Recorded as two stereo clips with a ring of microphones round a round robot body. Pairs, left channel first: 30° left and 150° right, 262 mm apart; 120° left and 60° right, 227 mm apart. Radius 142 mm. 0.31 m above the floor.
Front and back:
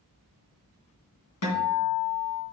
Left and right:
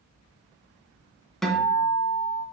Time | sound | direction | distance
1.4 | a guitar | 30° left | 2.5 m